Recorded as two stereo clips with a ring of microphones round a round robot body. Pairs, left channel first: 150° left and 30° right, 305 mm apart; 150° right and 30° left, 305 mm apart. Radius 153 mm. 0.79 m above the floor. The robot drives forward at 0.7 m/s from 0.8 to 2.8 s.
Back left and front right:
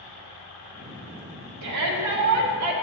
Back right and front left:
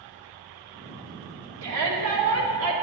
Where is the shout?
5° right, 1.9 m.